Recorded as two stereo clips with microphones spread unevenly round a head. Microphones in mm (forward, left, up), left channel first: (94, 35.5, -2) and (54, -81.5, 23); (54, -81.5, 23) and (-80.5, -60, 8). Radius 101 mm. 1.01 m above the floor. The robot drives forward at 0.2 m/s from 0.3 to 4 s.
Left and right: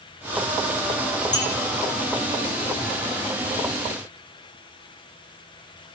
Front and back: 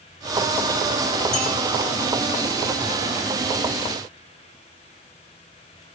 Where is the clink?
70° left, 3 m.